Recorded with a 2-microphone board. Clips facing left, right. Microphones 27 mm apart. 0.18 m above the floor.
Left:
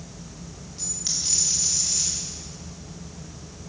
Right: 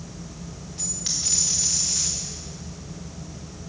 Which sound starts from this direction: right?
A dropped coin, at 0.8 s.